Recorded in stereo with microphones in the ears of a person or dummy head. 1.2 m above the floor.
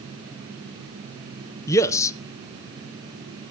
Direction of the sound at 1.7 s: 15° left (ahead or behind).